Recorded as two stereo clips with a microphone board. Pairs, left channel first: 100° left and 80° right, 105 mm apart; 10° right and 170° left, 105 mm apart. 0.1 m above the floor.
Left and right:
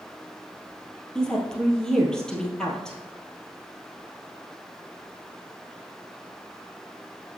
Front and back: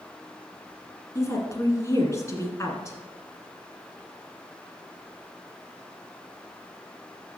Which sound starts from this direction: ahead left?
A woman speaking, at 1.1 s.